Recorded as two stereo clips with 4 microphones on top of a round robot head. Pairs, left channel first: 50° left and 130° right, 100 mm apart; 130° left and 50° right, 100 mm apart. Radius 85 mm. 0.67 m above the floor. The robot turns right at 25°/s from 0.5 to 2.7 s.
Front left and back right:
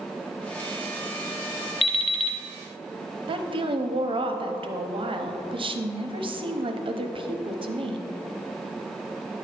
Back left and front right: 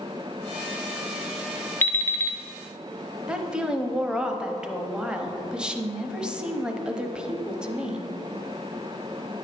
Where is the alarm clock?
60° left, 0.5 m; by 2.4 s 75° left, 0.5 m.